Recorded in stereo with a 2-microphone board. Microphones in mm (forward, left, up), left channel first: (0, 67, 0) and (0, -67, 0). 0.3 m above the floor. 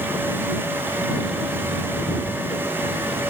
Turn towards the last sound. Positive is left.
No sound to turn to.